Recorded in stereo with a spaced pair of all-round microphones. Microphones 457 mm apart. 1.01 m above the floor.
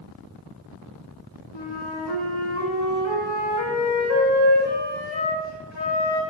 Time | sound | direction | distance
1.5 | a flute | 65° left (ahead or behind) | 2.5 m